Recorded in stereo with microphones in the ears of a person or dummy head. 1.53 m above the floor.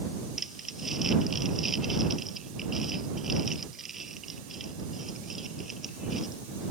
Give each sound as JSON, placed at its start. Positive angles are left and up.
{"t": 0.4, "sound": "crumpling", "side_deg": 0}